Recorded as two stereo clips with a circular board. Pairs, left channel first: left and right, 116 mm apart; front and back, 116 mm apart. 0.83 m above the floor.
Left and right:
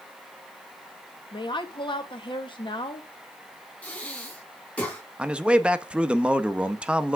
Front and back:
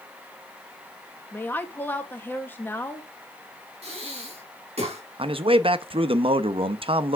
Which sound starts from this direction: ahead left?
A woman speaking, at 1.3 s.